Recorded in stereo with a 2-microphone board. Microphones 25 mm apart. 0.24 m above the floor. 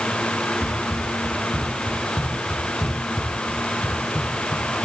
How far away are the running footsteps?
About 9 m.